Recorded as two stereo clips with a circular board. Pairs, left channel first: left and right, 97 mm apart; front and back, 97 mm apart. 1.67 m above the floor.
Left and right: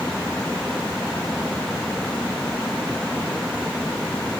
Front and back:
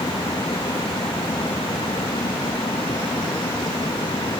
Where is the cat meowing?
No cat meowing in this recording.